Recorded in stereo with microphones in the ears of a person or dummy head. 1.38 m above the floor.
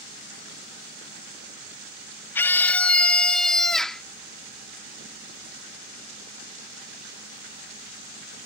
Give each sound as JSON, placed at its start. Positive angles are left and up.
{"t": 2.4, "sound": "a scream", "side_deg": 15}